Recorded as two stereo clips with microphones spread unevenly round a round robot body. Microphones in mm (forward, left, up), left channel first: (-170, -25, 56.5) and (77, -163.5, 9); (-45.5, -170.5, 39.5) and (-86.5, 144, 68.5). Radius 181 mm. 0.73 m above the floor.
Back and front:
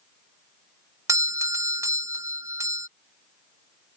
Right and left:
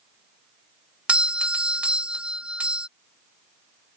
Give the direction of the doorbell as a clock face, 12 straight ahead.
12 o'clock.